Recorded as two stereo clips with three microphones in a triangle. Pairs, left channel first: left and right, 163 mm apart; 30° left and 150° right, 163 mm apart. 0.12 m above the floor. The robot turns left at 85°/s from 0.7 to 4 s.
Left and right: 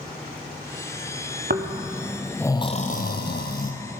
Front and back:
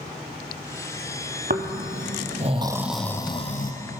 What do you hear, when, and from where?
1.5 s snoring: 115° right, 1.0 m; by 3.7 s 55° left, 1.0 m